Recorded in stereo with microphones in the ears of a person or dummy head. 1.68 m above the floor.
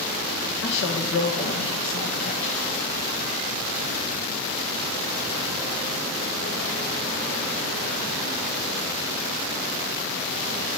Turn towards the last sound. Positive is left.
turn(degrees=65)  # may be behind; listen again after turning